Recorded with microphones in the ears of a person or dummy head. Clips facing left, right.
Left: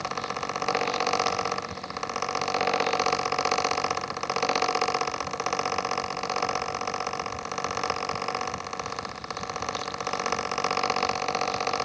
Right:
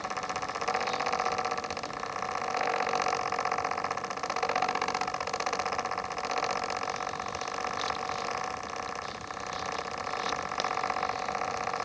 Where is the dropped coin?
No dropped coin in this recording.